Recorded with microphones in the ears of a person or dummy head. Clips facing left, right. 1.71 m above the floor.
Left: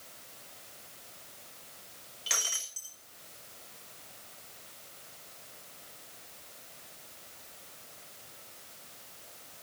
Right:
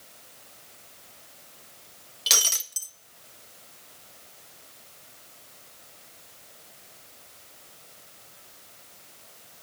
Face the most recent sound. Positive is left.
turn(degrees=-55)  # may be behind; listen again after turning